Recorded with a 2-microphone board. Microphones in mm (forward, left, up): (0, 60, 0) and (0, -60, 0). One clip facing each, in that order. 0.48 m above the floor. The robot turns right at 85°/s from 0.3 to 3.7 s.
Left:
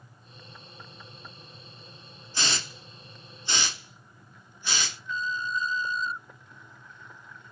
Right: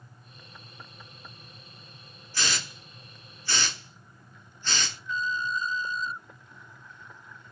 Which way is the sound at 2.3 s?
20° left (ahead or behind).